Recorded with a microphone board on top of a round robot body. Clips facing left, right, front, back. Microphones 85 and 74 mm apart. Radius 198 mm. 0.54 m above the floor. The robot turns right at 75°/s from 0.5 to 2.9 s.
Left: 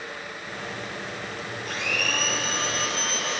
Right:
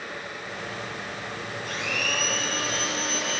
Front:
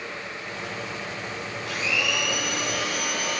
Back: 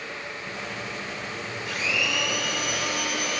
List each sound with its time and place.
1.6 s a blender: 50° right, 5.5 m; by 3.4 s 45° left, 5.5 m